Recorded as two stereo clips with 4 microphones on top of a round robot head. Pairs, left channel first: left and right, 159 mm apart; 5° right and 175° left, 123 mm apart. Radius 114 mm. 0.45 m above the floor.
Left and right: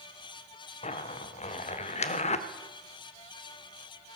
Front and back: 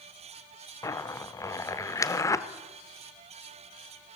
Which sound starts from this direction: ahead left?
A zipper, at 0.8 s.